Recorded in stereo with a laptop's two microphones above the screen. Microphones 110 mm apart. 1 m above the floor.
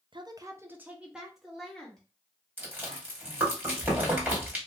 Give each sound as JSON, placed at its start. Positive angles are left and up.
{"t": 0.1, "sound": "a woman speaking", "side_deg": -45, "distance_m": 0.7}
{"t": 2.6, "sound": "chewing", "side_deg": -15, "distance_m": 2.5}